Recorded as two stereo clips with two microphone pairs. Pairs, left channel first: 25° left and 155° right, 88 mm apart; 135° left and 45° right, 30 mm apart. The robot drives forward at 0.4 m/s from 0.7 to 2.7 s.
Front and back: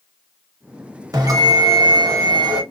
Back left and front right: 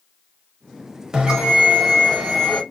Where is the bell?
105° right, 2.5 m; by 2.6 s 120° right, 2.5 m.